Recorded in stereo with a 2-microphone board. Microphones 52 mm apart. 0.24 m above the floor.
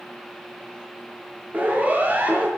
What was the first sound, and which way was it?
A siren, 35° right (ahead or behind).